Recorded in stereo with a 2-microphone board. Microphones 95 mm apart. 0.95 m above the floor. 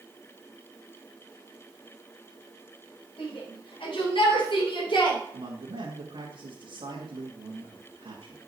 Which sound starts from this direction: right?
A man speaking, at 5.3 s.